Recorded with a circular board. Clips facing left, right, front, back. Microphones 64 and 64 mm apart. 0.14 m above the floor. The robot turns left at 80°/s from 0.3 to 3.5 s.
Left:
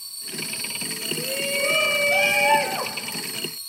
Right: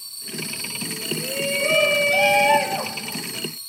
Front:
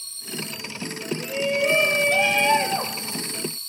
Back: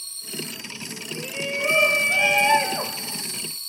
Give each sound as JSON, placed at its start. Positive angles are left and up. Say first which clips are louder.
{"t": 1.1, "sound": "a shout", "louder": "right 1 dB, front 5 dB", "azimuth_deg": -150, "distance_m": 1.1}